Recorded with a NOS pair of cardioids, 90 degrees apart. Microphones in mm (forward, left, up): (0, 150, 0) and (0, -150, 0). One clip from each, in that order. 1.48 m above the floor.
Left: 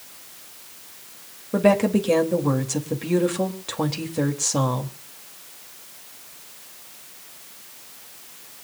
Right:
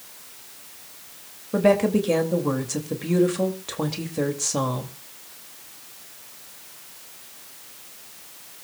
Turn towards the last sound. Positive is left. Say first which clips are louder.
# even
turn(degrees=10)